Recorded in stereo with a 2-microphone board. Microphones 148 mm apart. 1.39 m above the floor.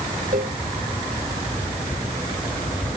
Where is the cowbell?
70° right (ahead or behind).